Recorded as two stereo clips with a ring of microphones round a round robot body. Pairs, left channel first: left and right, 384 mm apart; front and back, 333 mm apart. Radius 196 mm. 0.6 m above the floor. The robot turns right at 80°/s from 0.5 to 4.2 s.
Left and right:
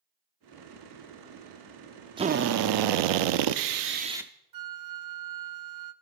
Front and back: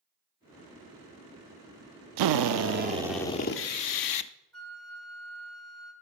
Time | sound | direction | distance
2.2 | a drill | 170° right | 0.5 m
4.5 | a flute | 85° right | 0.6 m